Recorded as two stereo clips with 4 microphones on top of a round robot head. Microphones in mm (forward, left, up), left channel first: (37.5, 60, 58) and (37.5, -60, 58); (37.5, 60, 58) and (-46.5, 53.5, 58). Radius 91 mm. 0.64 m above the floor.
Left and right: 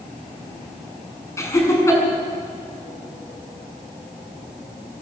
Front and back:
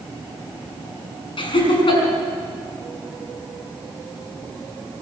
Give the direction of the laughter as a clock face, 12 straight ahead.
11 o'clock.